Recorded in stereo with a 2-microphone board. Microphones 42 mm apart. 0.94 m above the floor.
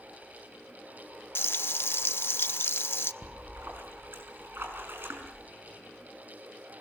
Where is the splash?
60° right (ahead or behind), 5 m.